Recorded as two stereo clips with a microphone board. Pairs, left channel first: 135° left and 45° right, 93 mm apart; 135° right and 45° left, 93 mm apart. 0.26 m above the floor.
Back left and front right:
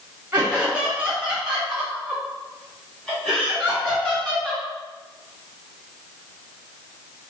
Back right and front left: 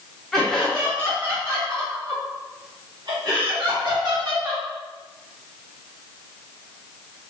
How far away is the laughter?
About 1.2 m.